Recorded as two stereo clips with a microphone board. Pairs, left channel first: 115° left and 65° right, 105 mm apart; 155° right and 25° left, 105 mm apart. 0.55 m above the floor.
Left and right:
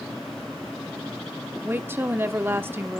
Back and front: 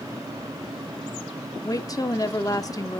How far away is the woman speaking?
About 1.0 m.